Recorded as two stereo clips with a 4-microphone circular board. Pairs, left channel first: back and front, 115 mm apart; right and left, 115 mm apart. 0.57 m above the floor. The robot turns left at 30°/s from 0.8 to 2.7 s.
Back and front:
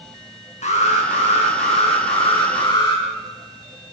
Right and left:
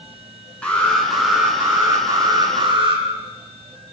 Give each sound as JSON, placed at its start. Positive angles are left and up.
{"t": 0.6, "sound": "an alarm", "azimuth_deg": -170, "distance_m": 8.5}